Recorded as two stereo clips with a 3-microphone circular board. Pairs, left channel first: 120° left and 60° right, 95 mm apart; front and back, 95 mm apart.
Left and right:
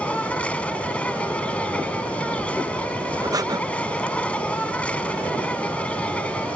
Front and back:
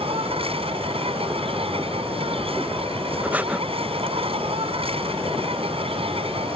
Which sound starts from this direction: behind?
An insect, at 0.0 s.